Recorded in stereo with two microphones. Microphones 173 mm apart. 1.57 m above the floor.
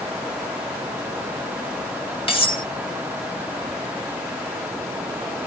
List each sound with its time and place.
2.3 s cutlery clinking: 30° left (ahead or behind), 1.9 m